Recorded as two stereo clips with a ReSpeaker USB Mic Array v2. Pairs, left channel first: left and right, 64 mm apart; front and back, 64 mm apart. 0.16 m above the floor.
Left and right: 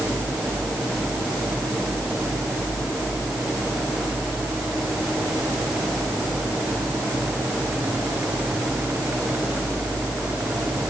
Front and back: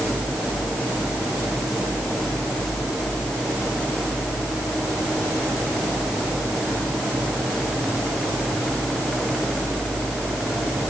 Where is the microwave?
No microwave in this recording.